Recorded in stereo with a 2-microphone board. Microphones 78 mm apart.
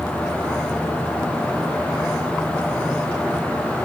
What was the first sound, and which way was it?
Only background noise.